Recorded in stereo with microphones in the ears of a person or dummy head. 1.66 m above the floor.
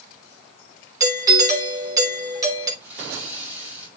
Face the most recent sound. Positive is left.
turn(degrees=-15)  # may be behind; listen again after turning